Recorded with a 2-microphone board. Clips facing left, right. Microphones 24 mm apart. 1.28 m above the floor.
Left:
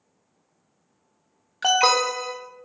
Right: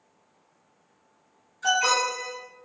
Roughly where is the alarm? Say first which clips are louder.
Left 4 dB; left.